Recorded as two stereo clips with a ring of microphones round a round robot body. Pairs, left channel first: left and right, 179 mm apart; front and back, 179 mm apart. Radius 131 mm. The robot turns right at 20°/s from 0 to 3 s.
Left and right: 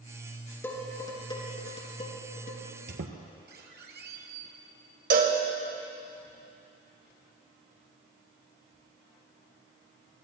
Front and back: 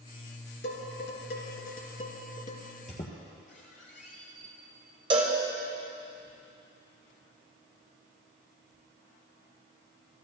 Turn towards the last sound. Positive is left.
turn(degrees=-120)